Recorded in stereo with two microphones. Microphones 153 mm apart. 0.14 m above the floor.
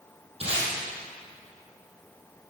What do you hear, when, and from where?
0.4 s tape being pulled: 40° right (ahead or behind), 3.5 m